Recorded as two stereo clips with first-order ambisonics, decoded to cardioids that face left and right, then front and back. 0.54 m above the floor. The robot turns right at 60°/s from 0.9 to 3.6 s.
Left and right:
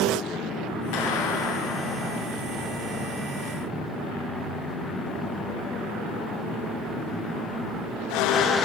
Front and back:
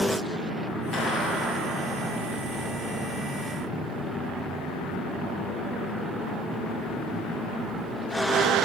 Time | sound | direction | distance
0.9 | a clap | 75° left | 8.5 m